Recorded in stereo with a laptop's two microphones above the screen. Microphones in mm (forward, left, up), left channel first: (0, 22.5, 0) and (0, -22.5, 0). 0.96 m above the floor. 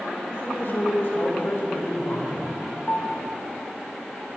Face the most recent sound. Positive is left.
turn(degrees=45)  # may be behind; listen again after turning